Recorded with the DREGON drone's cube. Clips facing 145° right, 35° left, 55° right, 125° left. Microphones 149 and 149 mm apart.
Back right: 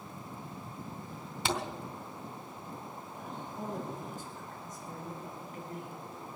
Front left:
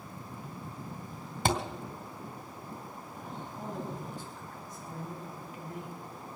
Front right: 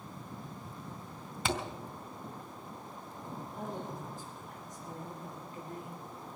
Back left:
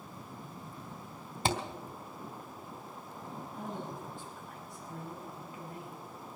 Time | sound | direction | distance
1.4 | a thud | 75° left | 2 m
3.5 | a man speaking | 105° right | 4 m